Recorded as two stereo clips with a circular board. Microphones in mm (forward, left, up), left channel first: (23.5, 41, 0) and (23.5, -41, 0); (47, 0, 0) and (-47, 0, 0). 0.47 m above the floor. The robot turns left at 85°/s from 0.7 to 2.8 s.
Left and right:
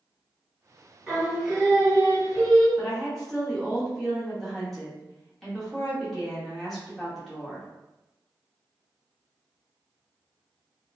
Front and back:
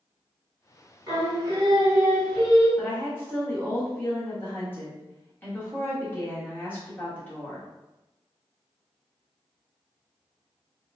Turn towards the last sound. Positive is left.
turn(degrees=5)